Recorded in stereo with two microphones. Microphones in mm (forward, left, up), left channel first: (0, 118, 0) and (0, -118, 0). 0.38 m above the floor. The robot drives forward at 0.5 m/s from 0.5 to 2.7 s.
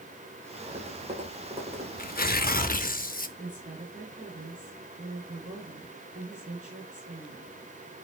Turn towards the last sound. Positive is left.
turn(degrees=-35)  # may be behind; listen again after turning